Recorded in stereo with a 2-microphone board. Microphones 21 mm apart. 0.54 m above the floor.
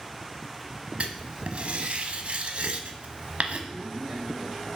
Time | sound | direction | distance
1.0 | writing | 65° right (ahead or behind) | 0.9 m
3.7 | a man speaking | 20° right (ahead or behind) | 5 m